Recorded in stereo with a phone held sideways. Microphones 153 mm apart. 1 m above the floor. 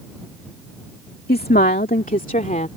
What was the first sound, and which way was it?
A woman speaking, 80° left.